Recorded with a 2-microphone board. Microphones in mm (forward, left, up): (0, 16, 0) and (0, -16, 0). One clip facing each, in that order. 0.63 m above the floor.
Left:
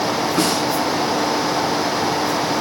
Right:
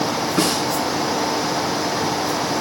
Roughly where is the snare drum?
Centre.